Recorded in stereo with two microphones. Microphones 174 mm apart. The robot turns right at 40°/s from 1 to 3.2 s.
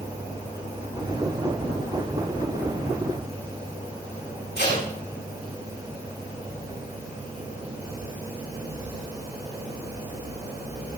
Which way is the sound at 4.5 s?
85° left.